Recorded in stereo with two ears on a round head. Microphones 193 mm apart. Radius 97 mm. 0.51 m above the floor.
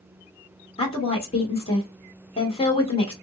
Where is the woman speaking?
25° left (ahead or behind), 1.6 m.